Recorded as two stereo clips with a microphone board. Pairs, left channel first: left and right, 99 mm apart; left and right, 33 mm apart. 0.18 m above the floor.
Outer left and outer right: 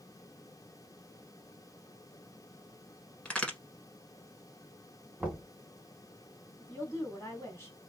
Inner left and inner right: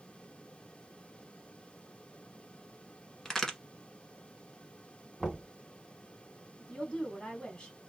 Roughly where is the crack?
Centre.